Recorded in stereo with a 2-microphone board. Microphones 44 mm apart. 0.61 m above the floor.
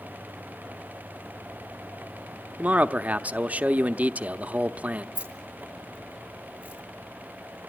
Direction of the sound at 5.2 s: 30° right (ahead or behind).